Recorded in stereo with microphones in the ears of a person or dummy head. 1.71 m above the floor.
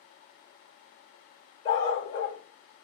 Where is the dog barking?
30° left (ahead or behind), 1.5 m.